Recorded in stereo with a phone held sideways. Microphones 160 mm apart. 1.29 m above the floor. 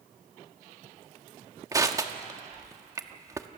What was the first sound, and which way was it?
Crushing, 20° right (ahead or behind).